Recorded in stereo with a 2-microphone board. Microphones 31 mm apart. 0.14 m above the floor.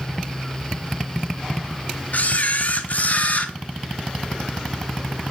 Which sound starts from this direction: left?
A camera shutter, at 2.1 s.